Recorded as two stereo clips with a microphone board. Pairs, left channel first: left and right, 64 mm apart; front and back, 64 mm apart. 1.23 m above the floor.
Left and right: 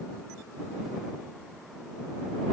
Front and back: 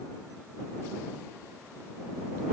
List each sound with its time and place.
Only background noise.